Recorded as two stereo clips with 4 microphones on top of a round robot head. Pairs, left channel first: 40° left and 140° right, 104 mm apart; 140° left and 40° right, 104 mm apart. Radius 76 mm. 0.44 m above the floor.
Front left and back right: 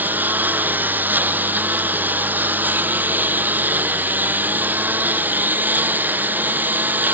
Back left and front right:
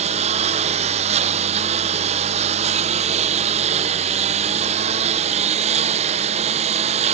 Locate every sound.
0.0 s a lawn mower: 65° right